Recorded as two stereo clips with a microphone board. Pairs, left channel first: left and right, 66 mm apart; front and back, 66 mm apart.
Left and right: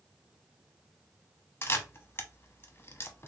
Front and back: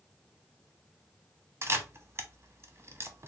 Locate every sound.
1.6 s a camera shutter: 140° left, 0.7 m